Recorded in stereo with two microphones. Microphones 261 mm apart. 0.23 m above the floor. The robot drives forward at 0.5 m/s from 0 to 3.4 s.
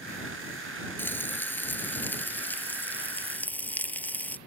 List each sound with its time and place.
1.0 s frying: 5° left (ahead or behind)